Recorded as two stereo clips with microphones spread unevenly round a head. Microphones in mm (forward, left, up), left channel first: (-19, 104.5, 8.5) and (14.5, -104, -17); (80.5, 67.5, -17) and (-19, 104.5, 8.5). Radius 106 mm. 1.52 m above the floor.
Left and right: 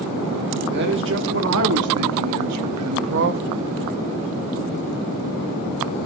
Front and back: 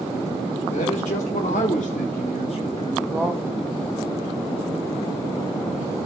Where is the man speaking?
40° right, 1.8 m; by 3.4 s 130° right, 0.8 m.